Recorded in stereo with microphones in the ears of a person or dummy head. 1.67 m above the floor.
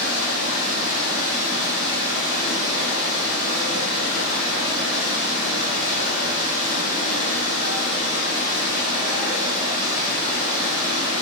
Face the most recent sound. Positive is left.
turn(degrees=-30)  # may be behind; listen again after turning